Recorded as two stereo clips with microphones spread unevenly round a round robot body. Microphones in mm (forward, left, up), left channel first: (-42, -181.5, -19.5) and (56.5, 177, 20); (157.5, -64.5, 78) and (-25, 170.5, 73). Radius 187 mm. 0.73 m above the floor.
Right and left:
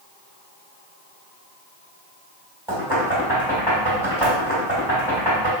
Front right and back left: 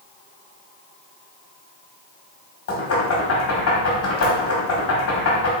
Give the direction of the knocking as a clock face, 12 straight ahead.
12 o'clock.